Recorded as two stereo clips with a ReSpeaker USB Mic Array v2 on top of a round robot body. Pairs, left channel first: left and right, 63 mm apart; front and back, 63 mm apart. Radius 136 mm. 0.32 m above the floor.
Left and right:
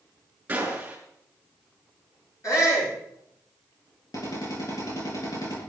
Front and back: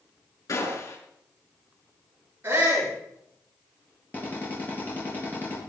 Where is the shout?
125° left, 7.5 m.